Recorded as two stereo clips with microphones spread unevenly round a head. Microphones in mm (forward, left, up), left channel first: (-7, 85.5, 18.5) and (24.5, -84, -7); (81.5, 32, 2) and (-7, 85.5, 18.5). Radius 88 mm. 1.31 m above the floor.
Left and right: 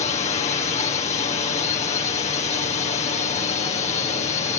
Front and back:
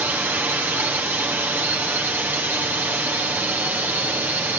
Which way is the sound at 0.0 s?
80° left.